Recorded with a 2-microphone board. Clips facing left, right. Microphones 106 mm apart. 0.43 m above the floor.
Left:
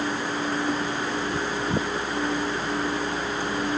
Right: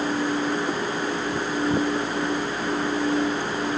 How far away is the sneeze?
No sneeze in this recording.